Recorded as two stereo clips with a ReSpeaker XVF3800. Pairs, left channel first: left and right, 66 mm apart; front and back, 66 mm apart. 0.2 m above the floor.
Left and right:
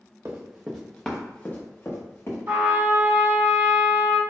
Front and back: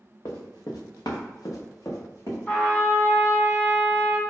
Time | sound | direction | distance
0.2 | running footsteps | 30° right | 1.2 m
2.5 | a trumpet | 55° right | 1.2 m